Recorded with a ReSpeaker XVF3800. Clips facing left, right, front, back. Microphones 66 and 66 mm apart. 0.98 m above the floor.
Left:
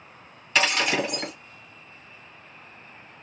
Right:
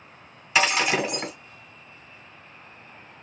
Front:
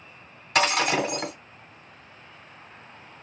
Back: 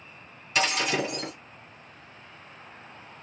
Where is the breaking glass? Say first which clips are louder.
Right 1 dB, front 4 dB; 10° right, 1.4 m.